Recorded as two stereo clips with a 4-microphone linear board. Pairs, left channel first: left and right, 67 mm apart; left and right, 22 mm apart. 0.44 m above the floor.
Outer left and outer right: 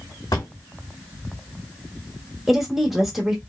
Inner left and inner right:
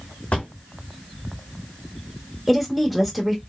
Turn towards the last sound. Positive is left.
turn(degrees=-5)  # may be behind; listen again after turning